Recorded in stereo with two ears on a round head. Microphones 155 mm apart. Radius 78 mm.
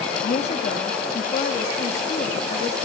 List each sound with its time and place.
0.2 s a woman speaking: 40° left (ahead or behind), 1.3 m